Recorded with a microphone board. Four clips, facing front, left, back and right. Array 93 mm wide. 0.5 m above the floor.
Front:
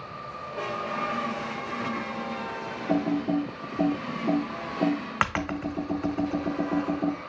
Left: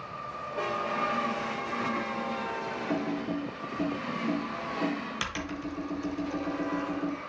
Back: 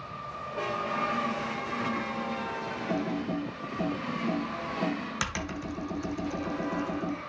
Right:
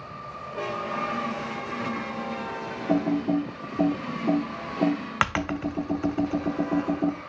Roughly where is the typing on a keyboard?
Ahead right.